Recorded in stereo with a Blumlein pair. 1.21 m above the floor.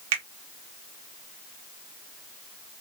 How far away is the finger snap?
About 0.8 m.